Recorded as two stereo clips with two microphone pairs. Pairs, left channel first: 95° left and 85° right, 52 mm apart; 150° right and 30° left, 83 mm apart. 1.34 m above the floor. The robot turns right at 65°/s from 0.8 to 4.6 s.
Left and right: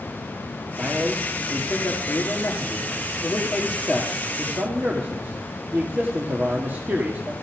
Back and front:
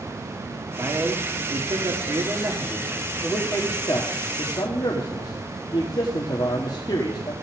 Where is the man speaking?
15° right, 2.5 m; by 7.3 s 130° right, 2.5 m.